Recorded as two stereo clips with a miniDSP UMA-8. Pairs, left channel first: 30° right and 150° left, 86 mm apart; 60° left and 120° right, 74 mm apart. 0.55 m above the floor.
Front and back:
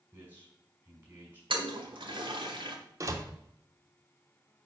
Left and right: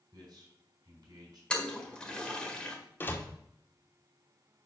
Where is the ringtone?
I don't hear a ringtone.